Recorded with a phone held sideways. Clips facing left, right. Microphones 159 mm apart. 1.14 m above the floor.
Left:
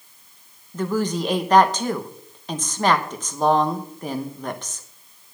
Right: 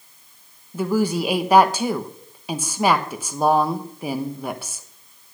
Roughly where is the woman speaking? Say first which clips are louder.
Right 2 dB; centre.